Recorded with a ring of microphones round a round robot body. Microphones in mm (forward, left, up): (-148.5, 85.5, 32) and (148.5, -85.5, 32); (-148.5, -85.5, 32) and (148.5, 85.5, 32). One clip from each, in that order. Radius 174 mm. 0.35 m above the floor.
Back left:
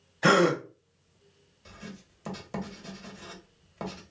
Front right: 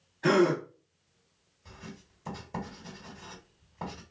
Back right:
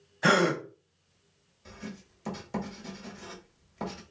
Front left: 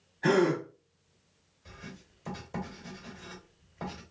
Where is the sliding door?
I don't hear a sliding door.